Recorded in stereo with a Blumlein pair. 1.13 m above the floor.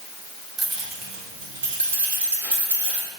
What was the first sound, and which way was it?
Keys jangling, 20° right.